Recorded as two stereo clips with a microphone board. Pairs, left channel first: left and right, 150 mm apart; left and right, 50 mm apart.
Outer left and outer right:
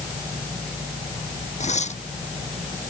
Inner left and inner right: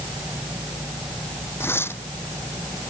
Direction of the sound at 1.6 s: 50° left (ahead or behind).